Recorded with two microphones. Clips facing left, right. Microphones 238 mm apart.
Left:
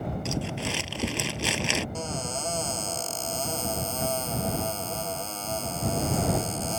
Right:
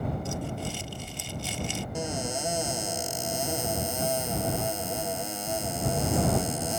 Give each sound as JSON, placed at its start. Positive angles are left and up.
{"t": 0.2, "sound": "crumpling", "side_deg": 80}
{"t": 1.9, "sound": "a cupboard door", "side_deg": -15}